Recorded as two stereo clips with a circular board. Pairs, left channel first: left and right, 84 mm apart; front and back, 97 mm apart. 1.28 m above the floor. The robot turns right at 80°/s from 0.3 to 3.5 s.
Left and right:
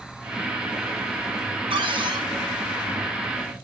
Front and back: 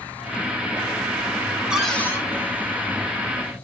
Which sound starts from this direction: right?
A cupboard door, at 1.7 s.